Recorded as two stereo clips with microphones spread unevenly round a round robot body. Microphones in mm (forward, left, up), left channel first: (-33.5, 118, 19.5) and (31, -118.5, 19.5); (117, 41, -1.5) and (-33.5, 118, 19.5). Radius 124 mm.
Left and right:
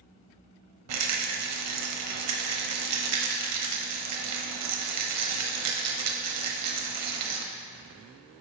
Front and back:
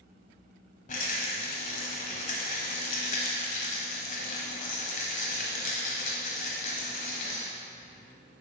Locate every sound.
0.9 s a rattle: 75° right, 0.8 m